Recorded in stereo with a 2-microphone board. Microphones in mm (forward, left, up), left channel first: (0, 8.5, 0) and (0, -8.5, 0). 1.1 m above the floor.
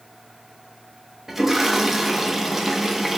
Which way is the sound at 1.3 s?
15° right (ahead or behind).